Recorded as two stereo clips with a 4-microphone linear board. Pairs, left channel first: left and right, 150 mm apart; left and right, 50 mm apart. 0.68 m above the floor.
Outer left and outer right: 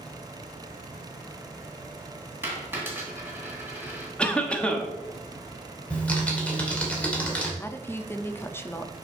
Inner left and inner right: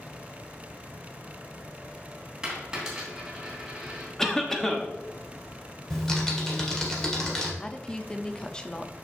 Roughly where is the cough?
Centre.